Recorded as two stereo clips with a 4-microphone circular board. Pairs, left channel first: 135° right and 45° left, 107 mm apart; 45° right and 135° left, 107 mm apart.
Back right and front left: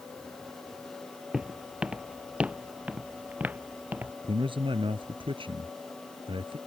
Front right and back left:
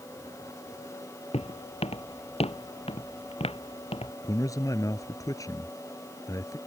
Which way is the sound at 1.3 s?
40° right.